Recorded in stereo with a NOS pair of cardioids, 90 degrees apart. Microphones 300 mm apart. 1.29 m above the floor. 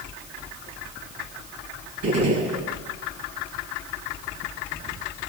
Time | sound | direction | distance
2.0 | a gunshot | 70° right | 7 m